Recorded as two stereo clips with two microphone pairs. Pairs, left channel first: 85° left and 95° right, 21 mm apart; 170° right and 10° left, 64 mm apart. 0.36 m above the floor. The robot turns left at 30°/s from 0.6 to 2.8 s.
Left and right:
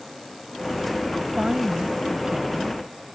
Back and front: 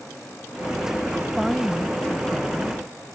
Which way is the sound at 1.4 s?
75° right.